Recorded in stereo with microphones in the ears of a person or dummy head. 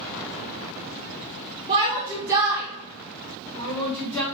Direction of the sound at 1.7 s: 25° right (ahead or behind).